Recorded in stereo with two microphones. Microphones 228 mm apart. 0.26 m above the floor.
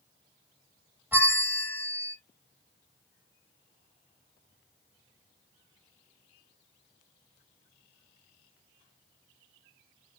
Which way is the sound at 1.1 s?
10° right (ahead or behind).